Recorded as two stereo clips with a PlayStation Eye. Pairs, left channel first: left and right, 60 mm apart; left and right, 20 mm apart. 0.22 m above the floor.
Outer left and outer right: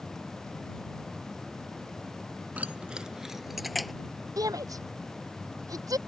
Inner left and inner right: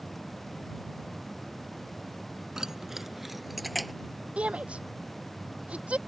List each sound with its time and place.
2.6 s keys jangling: 25° right (ahead or behind); by 3.9 s centre (ahead or behind)
4.4 s a shout: 75° right (ahead or behind)